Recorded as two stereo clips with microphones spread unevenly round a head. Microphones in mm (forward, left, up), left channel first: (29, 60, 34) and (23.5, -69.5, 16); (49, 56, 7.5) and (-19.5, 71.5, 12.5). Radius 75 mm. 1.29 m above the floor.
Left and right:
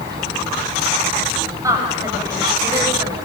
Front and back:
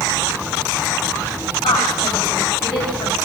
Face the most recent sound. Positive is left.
turn(degrees=-25)